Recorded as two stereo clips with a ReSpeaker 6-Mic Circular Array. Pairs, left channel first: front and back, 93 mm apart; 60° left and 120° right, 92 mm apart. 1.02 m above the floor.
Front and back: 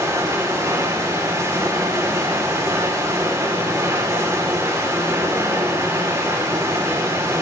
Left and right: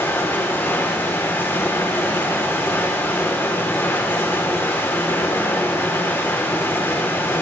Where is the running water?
125° left, 3 m.